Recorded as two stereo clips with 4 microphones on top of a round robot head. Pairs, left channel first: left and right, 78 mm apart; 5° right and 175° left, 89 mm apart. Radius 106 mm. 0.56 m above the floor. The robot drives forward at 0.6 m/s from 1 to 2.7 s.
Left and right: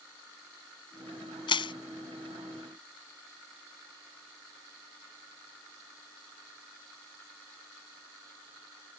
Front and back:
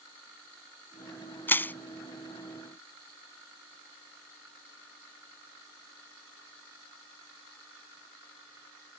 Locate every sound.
1.5 s crushing: 60° left; by 1.7 s 65° left